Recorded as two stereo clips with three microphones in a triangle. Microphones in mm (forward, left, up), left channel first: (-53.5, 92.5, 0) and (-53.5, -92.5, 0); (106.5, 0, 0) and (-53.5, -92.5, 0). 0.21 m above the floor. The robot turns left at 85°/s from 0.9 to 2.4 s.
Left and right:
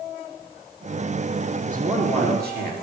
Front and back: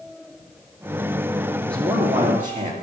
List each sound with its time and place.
1.7 s a man speaking: 45° right, 4 m; by 2.7 s 110° right, 4 m